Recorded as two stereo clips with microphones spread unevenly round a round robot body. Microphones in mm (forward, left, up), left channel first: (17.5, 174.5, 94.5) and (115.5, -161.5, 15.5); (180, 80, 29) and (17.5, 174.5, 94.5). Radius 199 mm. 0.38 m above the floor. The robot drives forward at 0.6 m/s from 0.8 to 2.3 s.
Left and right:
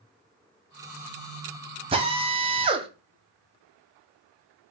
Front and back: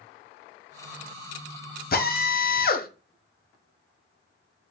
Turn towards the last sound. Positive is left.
turn(degrees=-5)